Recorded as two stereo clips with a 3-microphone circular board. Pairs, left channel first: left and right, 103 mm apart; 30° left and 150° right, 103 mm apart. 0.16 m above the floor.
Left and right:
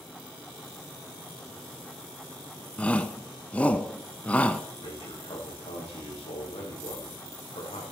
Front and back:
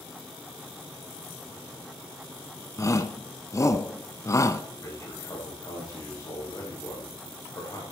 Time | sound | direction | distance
2.8 | a shout | 25° left | 1.1 m
4.8 | a man speaking | 85° left | 8.5 m